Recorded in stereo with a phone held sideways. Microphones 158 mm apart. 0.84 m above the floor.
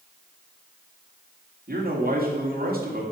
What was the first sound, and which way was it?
A man speaking, 70° right (ahead or behind).